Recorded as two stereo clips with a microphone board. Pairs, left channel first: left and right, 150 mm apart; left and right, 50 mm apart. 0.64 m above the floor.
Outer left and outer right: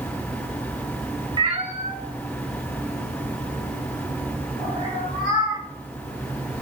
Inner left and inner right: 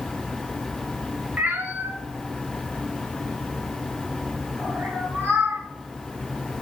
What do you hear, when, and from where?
1.4 s a cat meowing: 30° right (ahead or behind), 0.5 m; by 5.6 s 80° right, 3.5 m